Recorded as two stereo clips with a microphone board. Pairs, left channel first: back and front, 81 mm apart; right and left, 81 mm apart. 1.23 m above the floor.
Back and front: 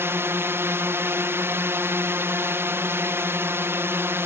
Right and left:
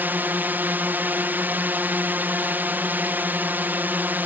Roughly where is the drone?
Ahead left.